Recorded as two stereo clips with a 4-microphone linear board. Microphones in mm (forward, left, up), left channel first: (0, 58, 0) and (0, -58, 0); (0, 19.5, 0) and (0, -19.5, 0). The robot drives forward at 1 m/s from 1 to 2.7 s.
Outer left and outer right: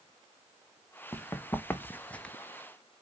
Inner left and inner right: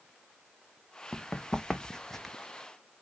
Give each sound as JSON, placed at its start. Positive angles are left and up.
{"t": 1.1, "sound": "running footsteps", "side_deg": 20, "distance_m": 1.3}